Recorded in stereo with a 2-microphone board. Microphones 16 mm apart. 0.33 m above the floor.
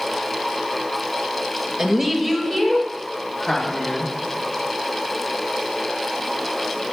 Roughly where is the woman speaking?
Right.